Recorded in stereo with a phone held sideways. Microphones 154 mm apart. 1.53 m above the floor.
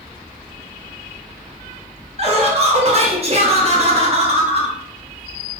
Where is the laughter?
40° right (ahead or behind), 0.9 m.